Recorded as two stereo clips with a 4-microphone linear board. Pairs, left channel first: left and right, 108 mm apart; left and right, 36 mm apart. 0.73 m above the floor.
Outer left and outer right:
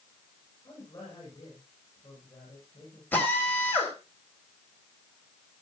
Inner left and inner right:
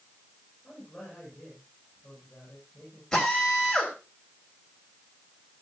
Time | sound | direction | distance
0.6 | a man speaking | 30° left (ahead or behind) | 8.5 m
3.1 | a drill | 15° left (ahead or behind) | 4 m